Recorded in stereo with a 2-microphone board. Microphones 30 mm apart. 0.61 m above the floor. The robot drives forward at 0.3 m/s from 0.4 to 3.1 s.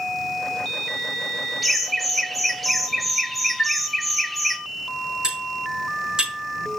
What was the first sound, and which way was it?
Laughter, 5° left (ahead or behind).